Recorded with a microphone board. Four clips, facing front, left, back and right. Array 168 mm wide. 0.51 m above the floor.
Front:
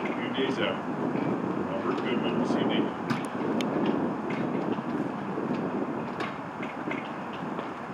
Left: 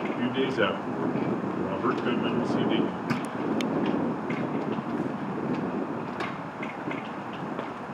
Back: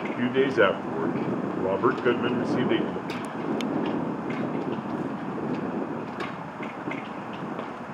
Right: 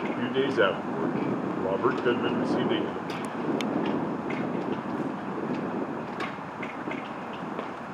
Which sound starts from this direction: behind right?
A man speaking, at 0.2 s.